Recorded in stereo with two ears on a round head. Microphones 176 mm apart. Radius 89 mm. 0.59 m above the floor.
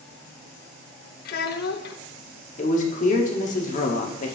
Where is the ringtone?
I don't hear a ringtone.